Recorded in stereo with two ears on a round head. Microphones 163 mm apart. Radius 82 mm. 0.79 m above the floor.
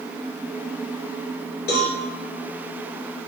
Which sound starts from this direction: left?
A cowbell, at 1.7 s.